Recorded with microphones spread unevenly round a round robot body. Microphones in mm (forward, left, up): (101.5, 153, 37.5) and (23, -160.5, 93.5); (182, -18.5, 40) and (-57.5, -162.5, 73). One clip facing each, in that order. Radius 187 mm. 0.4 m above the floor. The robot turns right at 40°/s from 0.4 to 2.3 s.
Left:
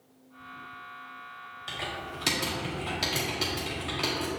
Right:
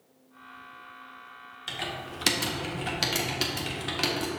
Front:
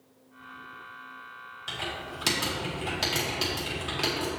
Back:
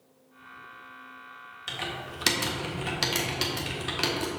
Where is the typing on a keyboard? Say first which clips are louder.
Right 1 dB, even; 160° right, 1.5 m; by 4.3 s 135° right, 1.5 m.